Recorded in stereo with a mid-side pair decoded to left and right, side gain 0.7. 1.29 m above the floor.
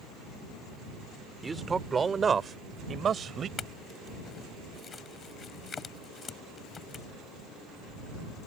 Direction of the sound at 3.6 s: 30° left.